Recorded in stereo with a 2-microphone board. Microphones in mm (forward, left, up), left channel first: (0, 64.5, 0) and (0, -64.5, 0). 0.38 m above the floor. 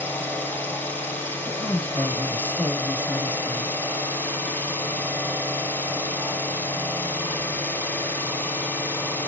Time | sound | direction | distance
0.0 | an engine running | 15° left (ahead or behind) | 1.0 m
1.5 | a woman speaking | 10° left (ahead or behind) | 1.3 m